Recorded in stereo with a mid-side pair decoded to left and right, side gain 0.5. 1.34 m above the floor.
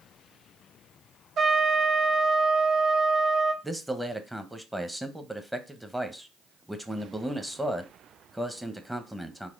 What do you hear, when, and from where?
1.4 s a trumpet: 55° right, 0.9 m
3.6 s a man speaking: 5° right, 0.8 m